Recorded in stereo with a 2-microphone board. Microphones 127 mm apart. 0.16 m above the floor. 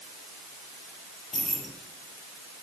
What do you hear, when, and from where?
1.3 s keys jangling: centre (ahead or behind), 3.5 m